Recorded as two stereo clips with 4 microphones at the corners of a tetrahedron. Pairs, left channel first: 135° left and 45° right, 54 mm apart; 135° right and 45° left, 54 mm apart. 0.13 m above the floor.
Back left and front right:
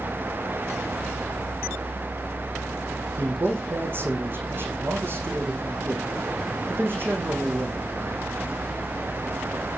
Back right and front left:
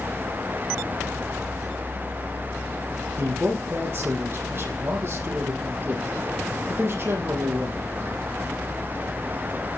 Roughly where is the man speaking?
Ahead.